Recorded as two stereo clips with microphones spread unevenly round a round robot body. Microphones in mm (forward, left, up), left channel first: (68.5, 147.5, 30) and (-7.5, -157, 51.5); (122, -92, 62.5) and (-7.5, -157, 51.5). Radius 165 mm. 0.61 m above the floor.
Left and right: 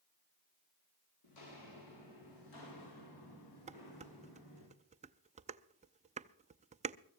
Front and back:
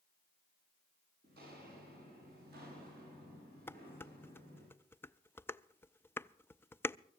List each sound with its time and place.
1.2 s footsteps: 100° left, 8.5 m; by 4.7 s 105° left, 10 m
3.7 s dishes clattering: 45° right, 0.6 m